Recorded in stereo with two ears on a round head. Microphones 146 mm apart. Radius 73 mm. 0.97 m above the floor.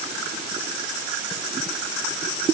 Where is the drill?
No drill in this recording.